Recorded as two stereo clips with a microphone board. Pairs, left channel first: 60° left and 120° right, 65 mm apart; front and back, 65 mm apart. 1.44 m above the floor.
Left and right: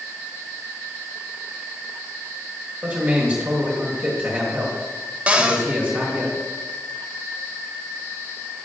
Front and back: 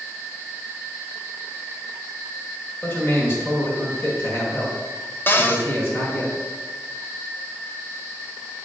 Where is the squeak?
No squeak in this recording.